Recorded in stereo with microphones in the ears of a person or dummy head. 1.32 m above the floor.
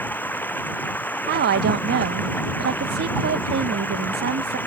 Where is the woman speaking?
55° right (ahead or behind).